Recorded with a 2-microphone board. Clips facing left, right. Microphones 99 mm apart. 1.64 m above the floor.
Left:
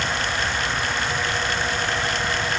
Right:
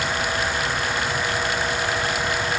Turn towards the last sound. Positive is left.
No sound to turn to.